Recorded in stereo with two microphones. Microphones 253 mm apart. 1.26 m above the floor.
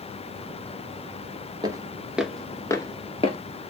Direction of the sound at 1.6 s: 15° right (ahead or behind).